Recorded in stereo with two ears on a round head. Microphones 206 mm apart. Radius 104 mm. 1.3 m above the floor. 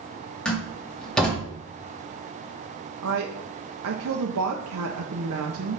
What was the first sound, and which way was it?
A door slam, 5° left (ahead or behind).